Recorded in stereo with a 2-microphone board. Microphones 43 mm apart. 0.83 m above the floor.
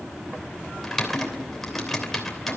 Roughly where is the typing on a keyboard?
Centre.